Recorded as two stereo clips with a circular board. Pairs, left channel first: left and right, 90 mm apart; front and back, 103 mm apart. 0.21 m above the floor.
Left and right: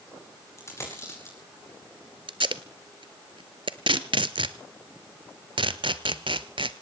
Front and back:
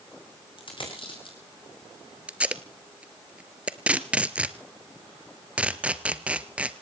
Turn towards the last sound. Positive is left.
turn(degrees=-105)